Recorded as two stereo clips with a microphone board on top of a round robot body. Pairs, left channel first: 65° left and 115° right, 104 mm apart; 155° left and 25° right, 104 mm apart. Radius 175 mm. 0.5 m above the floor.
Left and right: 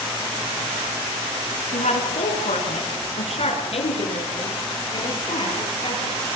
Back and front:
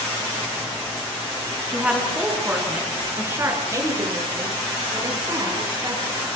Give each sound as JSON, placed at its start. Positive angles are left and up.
{"t": 1.7, "sound": "a woman speaking", "azimuth_deg": 60, "distance_m": 6.5}